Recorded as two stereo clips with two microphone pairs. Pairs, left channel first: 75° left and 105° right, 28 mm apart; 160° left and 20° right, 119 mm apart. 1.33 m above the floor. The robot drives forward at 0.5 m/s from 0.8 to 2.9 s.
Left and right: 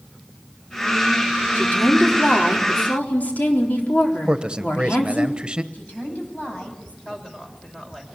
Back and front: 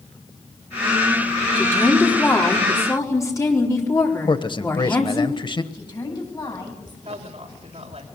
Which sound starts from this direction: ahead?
A woman speaking, at 7.0 s.